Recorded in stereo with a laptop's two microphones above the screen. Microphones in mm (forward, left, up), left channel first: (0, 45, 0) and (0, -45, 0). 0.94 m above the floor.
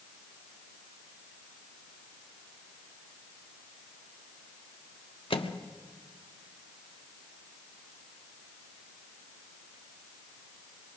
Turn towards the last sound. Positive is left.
turn(degrees=75)  # may be behind; listen again after turning